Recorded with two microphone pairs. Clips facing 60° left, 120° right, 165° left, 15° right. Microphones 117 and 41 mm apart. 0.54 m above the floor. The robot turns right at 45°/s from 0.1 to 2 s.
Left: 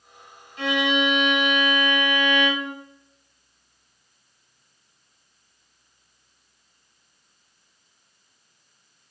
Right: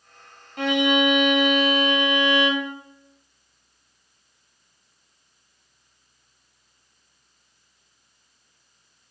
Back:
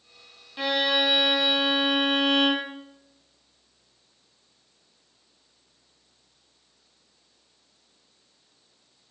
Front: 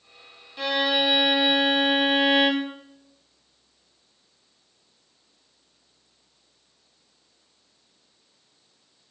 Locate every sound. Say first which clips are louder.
0.6 s a violin: right 3 dB, front 1 dB; 120° right, 0.6 m; by 2.7 s 55° right, 0.6 m